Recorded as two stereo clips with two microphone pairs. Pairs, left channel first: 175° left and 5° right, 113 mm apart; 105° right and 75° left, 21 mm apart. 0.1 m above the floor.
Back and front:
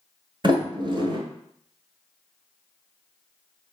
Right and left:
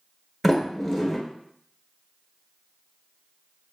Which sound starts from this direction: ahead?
A sliding door, at 0.4 s.